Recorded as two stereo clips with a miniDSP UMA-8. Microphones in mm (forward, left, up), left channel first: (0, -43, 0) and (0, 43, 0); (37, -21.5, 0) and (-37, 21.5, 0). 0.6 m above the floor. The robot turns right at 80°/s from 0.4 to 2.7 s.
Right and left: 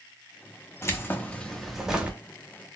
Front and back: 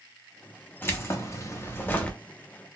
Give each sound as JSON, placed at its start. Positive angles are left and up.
{"t": 0.8, "sound": "keys jangling", "azimuth_deg": -75, "distance_m": 0.7}